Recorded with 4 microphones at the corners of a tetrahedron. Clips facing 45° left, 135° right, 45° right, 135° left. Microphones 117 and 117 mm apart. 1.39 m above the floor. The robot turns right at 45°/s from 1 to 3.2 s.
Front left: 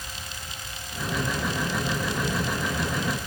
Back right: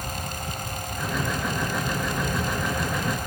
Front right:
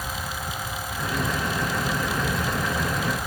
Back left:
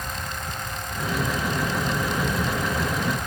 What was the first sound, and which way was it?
Only background noise.